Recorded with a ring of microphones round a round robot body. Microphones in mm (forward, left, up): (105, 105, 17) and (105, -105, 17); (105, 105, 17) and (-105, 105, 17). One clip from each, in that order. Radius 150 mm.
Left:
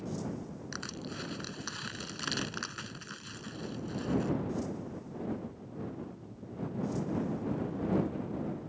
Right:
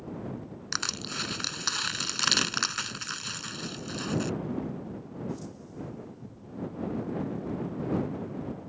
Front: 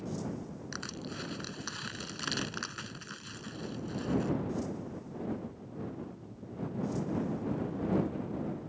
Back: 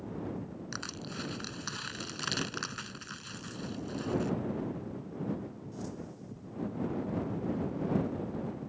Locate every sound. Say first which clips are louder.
0.7 s crushing: right 11 dB, back 1 dB; 95° right